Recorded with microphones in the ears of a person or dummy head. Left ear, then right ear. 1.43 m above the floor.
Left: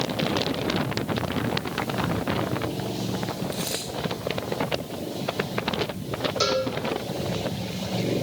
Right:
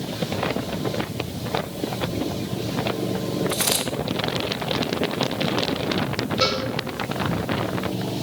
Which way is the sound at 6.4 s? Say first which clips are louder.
Right 1 dB; 60° left (ahead or behind).